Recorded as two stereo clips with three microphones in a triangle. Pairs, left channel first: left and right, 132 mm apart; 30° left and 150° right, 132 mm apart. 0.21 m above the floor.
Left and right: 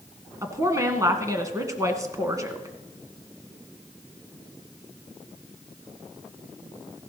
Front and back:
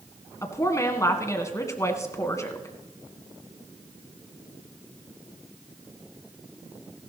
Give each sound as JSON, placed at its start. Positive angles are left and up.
{"t": 0.4, "sound": "a woman speaking", "azimuth_deg": -30, "distance_m": 1.6}